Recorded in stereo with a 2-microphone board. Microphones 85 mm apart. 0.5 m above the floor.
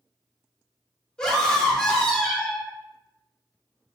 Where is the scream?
10° left (ahead or behind), 0.8 m.